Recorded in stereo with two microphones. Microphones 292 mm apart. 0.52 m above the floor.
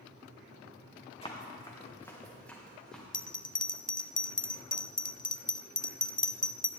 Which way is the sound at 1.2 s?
20° left (ahead or behind).